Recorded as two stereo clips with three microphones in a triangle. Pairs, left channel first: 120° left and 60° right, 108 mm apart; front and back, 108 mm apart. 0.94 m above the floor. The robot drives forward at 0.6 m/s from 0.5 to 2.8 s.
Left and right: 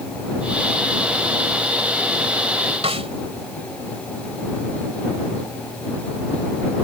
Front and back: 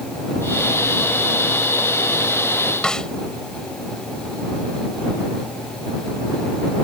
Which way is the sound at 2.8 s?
85° right.